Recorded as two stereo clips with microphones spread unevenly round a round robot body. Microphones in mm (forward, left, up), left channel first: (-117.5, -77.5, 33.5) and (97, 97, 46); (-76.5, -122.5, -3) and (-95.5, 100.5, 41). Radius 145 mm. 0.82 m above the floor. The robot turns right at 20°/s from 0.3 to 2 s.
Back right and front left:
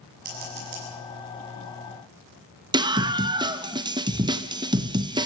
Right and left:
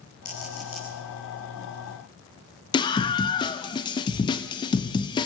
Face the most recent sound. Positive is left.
turn(degrees=-35)